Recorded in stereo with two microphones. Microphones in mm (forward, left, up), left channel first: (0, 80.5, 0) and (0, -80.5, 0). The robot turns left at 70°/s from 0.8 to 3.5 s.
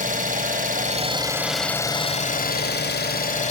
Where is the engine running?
125° right, 1.4 m; by 3.5 s 45° left, 1.4 m.